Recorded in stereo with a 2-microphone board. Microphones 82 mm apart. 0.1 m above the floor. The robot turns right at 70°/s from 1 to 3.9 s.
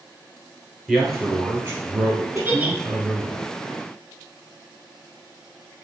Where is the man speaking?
170° left, 1.8 m; by 3.4 s 25° right, 1.8 m.